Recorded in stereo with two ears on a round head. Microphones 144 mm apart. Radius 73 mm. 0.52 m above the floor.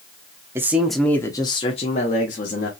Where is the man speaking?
15° right (ahead or behind), 0.7 m; by 2.7 s 55° left (ahead or behind), 1.2 m.